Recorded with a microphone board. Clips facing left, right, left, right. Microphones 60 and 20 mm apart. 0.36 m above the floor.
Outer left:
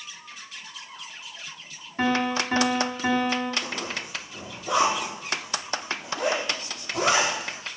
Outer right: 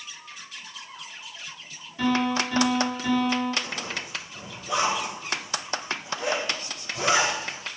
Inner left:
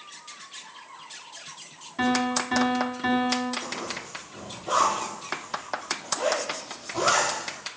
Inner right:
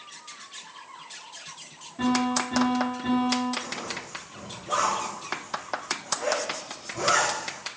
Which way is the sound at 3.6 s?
85° left.